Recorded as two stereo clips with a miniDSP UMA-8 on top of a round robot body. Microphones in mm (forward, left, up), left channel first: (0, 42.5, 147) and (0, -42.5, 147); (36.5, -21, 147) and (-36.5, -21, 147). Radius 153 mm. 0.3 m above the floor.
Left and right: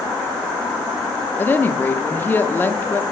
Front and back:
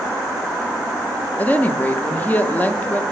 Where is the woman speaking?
45° left, 0.9 m.